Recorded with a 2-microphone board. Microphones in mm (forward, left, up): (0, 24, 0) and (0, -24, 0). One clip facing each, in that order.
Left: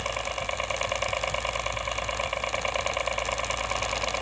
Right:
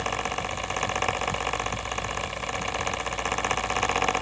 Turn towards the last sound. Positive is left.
turn(degrees=30)  # may be behind; listen again after turning